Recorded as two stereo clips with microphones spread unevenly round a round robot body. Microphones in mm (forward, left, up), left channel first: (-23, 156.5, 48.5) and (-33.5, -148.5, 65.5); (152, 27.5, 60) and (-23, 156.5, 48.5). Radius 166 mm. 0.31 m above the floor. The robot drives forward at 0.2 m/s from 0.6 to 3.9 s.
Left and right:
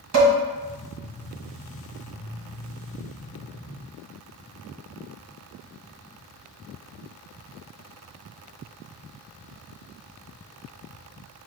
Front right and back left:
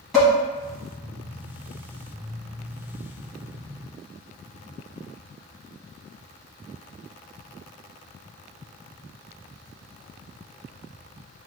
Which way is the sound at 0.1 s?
130° right.